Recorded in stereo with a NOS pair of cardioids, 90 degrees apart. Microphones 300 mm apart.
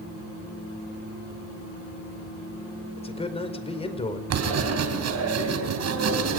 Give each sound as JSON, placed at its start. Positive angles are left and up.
{"t": 3.0, "sound": "a man speaking", "azimuth_deg": 20, "distance_m": 4.5}
{"t": 4.3, "sound": "writing", "azimuth_deg": -60, "distance_m": 4.0}